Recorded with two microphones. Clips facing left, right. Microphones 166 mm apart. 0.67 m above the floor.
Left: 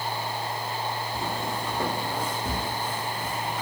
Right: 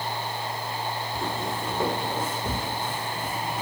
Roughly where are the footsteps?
Centre.